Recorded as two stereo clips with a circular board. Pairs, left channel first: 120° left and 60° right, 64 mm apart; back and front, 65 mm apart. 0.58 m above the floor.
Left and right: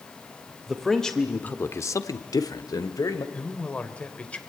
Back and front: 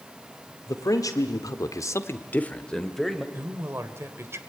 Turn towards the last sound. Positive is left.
turn(degrees=50)